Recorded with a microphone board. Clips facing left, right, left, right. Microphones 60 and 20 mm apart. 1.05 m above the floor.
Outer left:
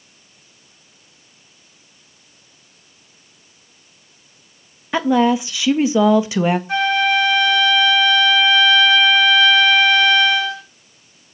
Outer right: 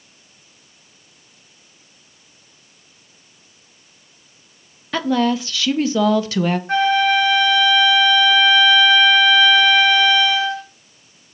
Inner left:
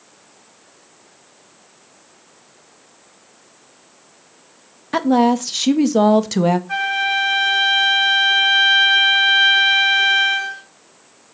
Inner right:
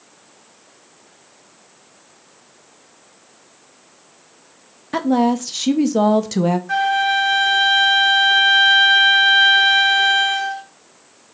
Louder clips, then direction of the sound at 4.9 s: Outer left 3 dB, inner left 2 dB; 20° left (ahead or behind).